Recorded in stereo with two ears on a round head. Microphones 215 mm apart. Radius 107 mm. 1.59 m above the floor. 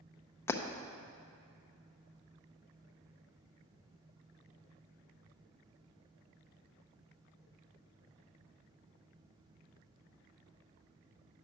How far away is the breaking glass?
About 0.7 m.